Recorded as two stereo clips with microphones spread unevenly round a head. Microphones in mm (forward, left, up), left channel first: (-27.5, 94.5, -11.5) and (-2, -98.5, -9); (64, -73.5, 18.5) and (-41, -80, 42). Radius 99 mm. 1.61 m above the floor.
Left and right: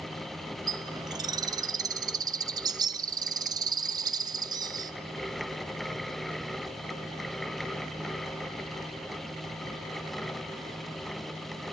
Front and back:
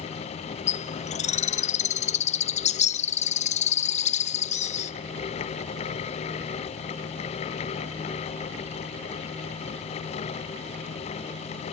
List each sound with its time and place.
0.7 s a bird: 10° right, 0.6 m